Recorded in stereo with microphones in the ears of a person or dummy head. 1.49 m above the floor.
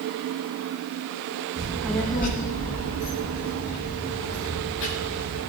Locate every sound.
1.6 s a child speaking: 20° right (ahead or behind), 1.0 m; by 5.4 s 70° left (ahead or behind), 4.5 m